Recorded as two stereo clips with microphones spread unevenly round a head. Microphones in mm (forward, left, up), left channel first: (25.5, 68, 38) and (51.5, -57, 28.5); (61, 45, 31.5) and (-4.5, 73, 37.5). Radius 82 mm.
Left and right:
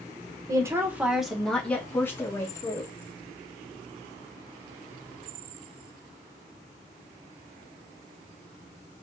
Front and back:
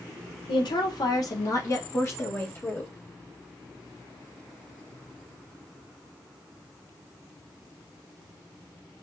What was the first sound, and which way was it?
A woman speaking, 15° right.